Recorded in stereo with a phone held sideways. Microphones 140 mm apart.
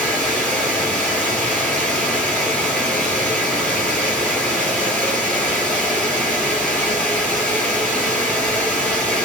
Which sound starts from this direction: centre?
Running water, at 0.0 s.